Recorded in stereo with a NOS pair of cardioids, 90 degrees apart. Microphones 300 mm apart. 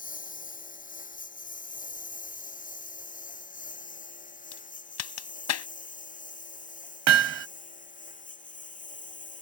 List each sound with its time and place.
0.0 s a lawn mower: 25° left
4.5 s a crack: 65° left
7.1 s hammering: 60° right